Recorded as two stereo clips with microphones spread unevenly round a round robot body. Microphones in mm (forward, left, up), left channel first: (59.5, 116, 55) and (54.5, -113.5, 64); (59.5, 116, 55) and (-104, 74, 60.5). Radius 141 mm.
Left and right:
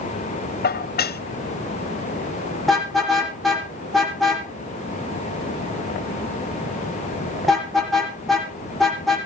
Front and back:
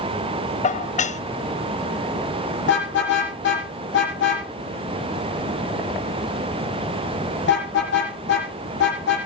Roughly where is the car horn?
Ahead.